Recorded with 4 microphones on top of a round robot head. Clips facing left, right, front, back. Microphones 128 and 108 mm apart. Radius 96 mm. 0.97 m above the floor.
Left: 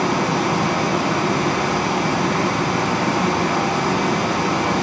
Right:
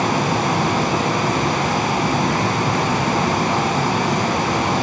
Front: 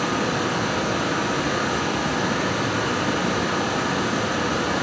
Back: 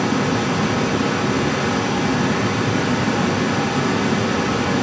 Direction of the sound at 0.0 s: 160° right.